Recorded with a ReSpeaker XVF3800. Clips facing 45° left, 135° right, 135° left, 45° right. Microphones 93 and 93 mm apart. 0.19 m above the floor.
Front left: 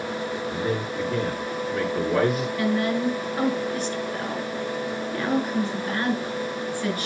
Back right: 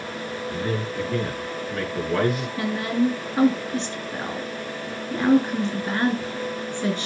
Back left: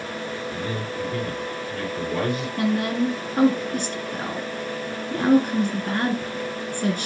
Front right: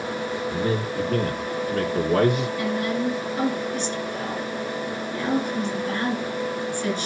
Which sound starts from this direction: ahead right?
A man speaking, at 0.5 s.